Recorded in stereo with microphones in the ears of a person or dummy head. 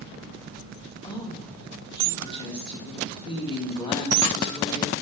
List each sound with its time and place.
1.0 s a woman speaking: 20° left (ahead or behind), 2 m